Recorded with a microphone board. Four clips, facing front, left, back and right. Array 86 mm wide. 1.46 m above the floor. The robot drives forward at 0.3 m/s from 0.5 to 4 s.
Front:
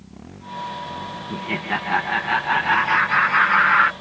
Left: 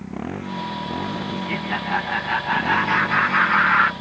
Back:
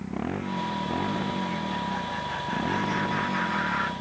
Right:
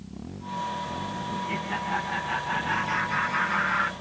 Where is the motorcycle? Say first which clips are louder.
Left 10 dB, back 10 dB; 130° left.